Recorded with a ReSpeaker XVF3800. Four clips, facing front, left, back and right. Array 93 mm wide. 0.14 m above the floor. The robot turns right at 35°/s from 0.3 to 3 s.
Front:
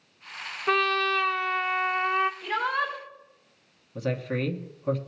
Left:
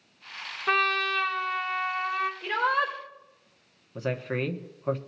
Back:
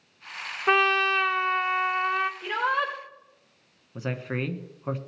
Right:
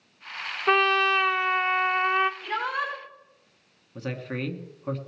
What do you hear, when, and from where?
0.7 s a trumpet: 150° right, 0.8 m; by 2.3 s 95° right, 0.8 m
2.4 s a shout: 130° left, 4 m; by 2.9 s 145° left, 4 m
4.0 s a man speaking: 155° left, 1.1 m